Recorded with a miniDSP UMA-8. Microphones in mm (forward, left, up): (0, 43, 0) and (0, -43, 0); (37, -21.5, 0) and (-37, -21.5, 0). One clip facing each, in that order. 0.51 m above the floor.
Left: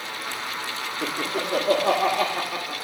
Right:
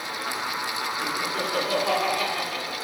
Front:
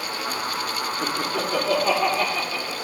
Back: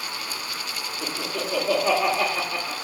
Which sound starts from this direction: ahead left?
Laughter, at 1.0 s.